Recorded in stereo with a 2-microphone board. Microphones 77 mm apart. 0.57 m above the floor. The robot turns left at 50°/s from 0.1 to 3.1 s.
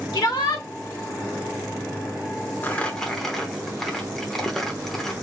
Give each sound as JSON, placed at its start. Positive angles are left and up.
{"t": 0.1, "sound": "a shout", "side_deg": 55, "distance_m": 1.4}
{"t": 2.6, "sound": "crumpling", "side_deg": 25, "distance_m": 0.9}